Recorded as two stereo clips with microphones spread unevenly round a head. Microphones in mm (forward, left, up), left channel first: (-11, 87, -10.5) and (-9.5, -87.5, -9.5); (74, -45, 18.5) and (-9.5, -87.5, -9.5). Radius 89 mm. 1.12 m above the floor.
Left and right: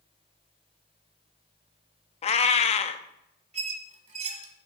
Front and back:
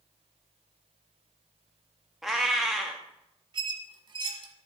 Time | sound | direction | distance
2.2 | a cat meowing | 90° left | 0.5 m
3.5 | a squeak | 120° right | 1.3 m